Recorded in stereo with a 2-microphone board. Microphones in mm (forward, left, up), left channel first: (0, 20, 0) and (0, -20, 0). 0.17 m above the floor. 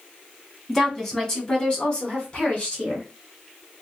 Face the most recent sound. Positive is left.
turn(degrees=40)  # may be behind; listen again after turning